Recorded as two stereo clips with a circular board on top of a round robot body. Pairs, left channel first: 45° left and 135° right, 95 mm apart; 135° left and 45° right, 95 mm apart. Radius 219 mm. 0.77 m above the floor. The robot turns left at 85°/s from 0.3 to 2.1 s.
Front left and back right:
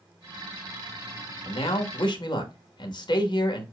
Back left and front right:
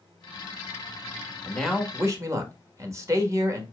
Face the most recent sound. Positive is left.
turn(degrees=10)